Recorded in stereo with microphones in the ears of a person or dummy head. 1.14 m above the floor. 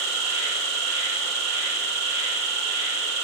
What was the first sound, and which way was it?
An insect, 75° right (ahead or behind).